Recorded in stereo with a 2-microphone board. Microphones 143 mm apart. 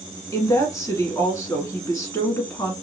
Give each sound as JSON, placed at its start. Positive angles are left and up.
{"t": 0.3, "sound": "a woman speaking", "side_deg": 25, "distance_m": 1.2}